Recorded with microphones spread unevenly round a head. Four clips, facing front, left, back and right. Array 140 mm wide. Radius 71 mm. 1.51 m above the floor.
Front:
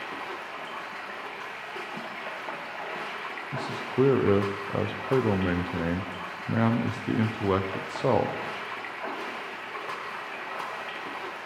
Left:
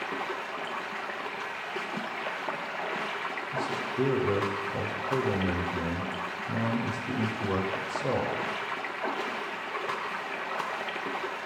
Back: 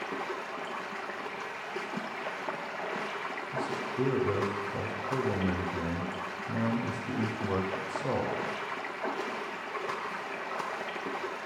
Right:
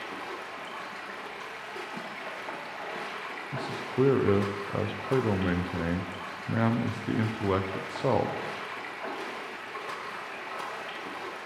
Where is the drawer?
I don't hear a drawer.